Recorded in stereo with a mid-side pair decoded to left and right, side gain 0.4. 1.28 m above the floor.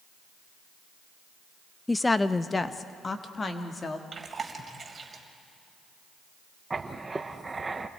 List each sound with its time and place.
1.9 s a woman speaking: 15° left, 0.6 m; by 4.0 s 40° left, 2 m
4.1 s chewing: 35° right, 3.5 m
6.7 s writing: 25° right, 1.2 m